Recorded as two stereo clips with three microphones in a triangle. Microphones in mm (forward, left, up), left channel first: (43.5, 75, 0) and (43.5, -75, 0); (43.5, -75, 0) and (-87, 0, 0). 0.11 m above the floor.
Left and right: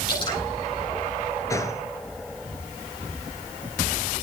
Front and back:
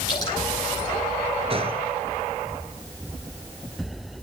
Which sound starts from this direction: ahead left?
Dripping, at 0.1 s.